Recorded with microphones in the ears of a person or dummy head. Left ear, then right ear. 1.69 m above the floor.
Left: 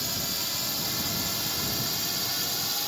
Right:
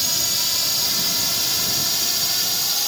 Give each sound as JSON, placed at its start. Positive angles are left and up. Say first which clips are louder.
{"t": 0.0, "sound": "a drone", "louder": "right 9 dB", "side_deg": -30}